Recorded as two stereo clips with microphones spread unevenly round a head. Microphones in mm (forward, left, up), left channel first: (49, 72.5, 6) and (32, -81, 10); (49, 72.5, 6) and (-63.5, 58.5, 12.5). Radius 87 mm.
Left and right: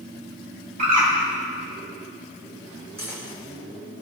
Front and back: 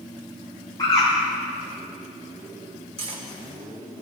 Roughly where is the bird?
Ahead right.